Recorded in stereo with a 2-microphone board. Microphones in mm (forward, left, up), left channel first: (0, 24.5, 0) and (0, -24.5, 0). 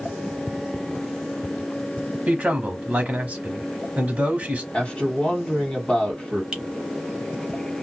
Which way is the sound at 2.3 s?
30° right (ahead or behind).